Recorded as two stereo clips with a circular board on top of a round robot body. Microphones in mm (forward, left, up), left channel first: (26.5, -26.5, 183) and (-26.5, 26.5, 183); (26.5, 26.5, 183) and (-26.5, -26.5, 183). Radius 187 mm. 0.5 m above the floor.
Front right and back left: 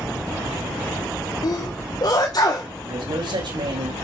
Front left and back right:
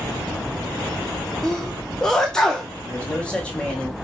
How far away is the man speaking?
About 4.5 m.